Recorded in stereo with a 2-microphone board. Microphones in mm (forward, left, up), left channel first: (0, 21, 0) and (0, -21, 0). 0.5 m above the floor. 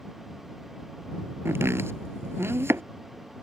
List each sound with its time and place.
1.4 s chopping: 85° right